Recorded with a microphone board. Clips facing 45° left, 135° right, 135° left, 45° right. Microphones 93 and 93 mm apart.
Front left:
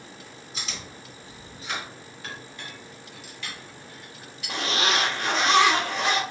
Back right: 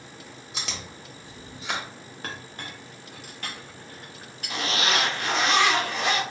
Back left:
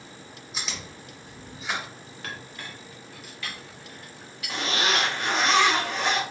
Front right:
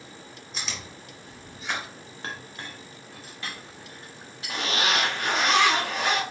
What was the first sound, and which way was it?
Chewing, 135° right.